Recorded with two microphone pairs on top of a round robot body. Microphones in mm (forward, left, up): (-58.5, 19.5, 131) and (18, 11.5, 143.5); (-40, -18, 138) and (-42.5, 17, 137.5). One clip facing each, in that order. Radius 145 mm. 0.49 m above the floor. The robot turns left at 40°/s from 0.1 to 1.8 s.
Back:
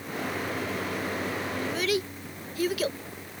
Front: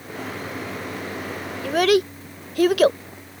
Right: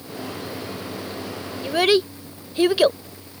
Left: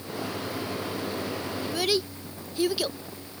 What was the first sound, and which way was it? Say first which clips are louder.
A child speaking: front 13 dB, right 10 dB; 30° right.